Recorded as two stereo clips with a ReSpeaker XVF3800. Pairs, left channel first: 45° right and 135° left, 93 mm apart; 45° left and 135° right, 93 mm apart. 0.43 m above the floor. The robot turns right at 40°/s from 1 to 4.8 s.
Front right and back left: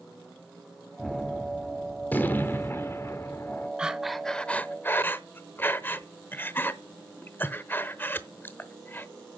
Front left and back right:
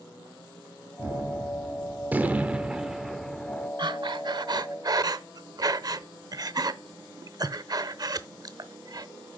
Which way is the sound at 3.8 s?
145° right.